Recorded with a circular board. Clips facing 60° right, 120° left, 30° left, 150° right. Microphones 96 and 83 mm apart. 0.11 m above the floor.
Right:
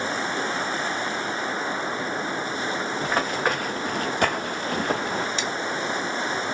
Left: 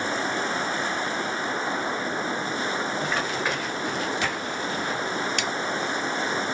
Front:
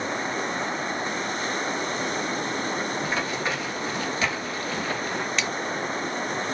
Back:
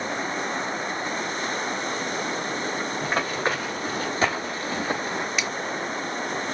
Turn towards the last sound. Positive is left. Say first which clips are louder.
# even, front 1 dB
turn(degrees=130)